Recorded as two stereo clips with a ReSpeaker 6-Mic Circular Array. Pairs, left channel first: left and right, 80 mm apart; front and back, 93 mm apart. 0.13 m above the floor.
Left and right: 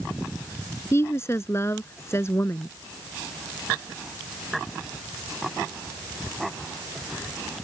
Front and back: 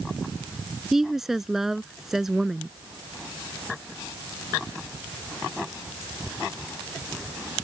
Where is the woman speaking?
95° left.